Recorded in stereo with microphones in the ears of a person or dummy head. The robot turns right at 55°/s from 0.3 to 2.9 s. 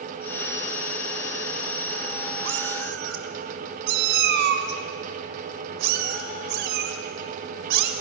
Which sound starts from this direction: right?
A cat meowing, at 2.5 s.